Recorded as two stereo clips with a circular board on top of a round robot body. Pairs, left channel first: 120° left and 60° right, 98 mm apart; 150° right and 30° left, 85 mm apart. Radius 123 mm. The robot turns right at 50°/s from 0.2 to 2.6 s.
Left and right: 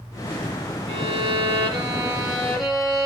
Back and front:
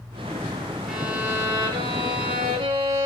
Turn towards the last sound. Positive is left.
turn(degrees=30)